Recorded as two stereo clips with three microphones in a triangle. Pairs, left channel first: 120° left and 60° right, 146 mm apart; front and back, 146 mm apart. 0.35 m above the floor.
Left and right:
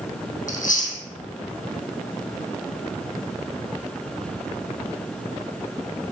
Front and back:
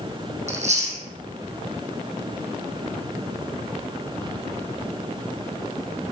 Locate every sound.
0.5 s chewing: 145° left, 2.5 m